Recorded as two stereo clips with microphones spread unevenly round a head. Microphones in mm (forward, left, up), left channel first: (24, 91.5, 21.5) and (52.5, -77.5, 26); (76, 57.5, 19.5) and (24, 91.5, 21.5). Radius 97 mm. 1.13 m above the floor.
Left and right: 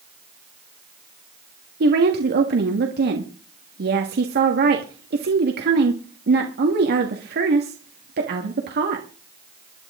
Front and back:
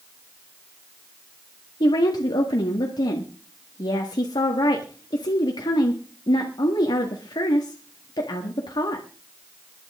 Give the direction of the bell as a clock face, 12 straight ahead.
No bell in this recording.